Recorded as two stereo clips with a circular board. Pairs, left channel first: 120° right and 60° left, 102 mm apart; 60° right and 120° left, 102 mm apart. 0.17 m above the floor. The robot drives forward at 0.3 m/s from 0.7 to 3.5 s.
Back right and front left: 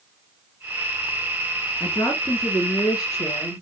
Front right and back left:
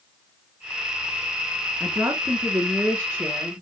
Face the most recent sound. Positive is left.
turn(degrees=-170)